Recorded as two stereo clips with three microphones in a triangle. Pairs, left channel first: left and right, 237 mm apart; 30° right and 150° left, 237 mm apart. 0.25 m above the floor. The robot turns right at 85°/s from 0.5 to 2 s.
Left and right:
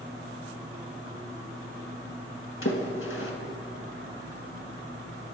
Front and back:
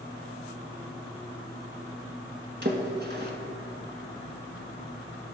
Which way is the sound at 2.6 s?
110° left.